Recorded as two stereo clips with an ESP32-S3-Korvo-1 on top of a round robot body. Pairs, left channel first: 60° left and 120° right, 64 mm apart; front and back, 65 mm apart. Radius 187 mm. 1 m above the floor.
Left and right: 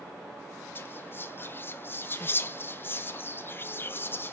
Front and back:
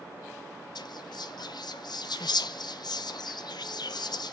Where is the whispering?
Straight ahead, 0.6 m.